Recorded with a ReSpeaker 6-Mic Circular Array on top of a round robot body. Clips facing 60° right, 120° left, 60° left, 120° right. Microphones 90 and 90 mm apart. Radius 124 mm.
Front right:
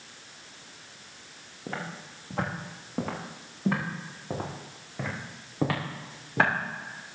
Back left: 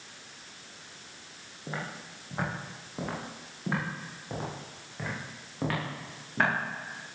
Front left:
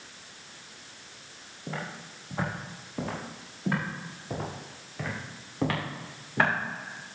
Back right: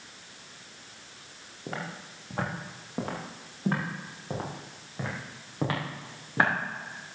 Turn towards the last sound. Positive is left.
turn(degrees=-45)